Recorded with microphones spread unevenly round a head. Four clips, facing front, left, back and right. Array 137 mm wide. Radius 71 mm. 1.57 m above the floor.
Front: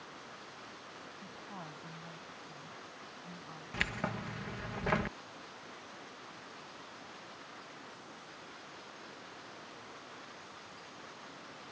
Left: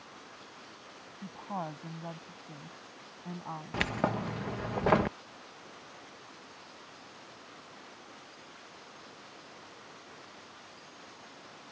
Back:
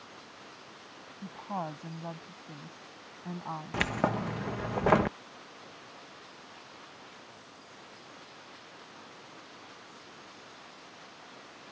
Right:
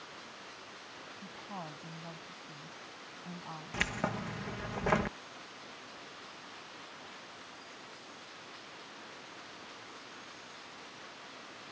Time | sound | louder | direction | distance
1.2 | a woman speaking | left 7 dB, back 14 dB | 145° left | ?
3.7 | keys jangling | left 4 dB, back 8 dB | 150° left | ?